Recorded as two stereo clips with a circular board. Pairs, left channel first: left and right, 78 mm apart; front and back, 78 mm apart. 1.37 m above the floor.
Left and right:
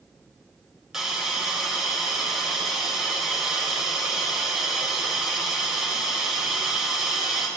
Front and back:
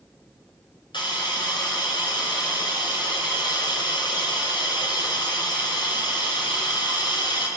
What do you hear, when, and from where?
0.9 s a hiss: 5° right, 4 m